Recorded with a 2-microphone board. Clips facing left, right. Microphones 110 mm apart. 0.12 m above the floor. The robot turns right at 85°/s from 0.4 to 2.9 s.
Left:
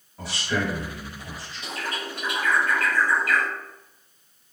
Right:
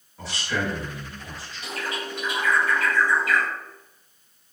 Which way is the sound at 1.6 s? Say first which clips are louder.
Right 1 dB; 20° left (ahead or behind).